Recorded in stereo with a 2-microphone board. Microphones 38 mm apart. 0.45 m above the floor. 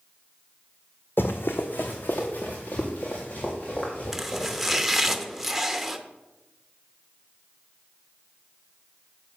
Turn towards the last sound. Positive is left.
turn(degrees=-5)  # may be behind; listen again after turning